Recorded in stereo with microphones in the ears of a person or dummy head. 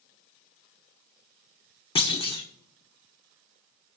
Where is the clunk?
30° left (ahead or behind), 1.0 m.